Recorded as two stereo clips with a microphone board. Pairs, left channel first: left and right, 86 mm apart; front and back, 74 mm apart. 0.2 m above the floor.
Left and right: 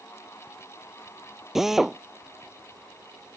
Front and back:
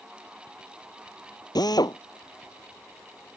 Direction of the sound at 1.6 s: 5° right.